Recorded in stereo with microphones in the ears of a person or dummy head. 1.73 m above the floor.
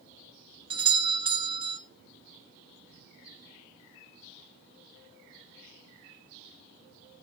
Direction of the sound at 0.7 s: 25° right (ahead or behind).